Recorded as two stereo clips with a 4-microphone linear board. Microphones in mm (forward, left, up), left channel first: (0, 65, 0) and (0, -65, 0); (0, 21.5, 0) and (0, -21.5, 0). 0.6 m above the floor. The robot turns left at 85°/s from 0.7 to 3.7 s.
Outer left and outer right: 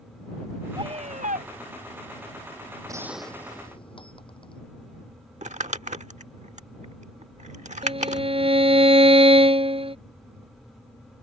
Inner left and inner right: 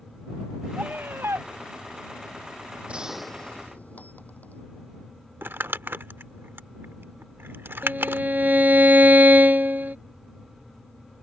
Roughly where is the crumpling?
Right.